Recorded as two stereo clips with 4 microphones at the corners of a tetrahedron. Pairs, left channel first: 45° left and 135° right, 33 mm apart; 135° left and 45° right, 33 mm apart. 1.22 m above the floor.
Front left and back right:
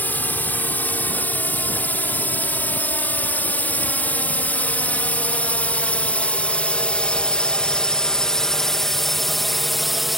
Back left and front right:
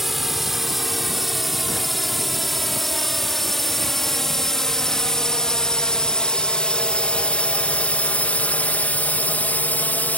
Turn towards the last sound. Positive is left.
turn(degrees=140)